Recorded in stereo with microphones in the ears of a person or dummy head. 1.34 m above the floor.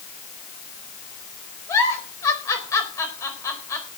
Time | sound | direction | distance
1.7 | a giggle | 15° left (ahead or behind) | 4.5 m